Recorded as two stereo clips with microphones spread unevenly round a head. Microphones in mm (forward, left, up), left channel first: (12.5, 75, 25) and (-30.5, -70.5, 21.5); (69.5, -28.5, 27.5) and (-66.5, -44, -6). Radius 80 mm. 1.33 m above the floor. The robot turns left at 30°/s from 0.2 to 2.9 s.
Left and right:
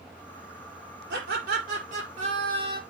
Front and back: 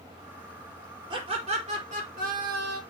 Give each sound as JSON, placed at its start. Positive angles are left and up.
{"t": 1.1, "sound": "laughter", "azimuth_deg": -120, "distance_m": 4.5}